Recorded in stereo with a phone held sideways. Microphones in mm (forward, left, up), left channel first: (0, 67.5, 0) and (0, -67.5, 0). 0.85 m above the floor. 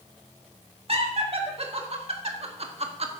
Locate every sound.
0.9 s laughter: 50° right (ahead or behind), 2.5 m